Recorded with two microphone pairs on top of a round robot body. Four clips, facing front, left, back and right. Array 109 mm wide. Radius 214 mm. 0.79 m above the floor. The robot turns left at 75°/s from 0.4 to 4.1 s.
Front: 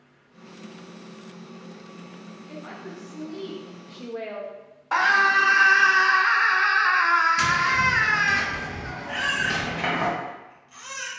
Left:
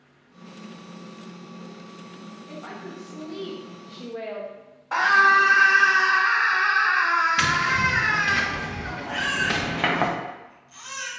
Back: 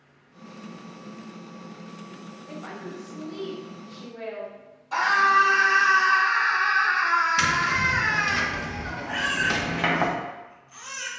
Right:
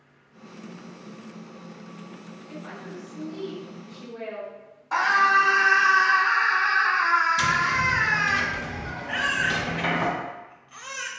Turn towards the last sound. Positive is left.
turn(degrees=-100)